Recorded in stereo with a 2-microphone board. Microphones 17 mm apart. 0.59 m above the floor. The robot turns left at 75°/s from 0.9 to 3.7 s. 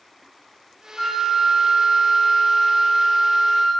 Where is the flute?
25° left (ahead or behind), 1.1 m; by 3.7 s 25° right (ahead or behind), 1.1 m.